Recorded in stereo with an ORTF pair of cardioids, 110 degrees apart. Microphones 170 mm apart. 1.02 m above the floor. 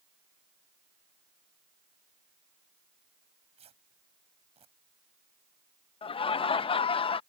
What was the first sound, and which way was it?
Tearing paper, 35° right.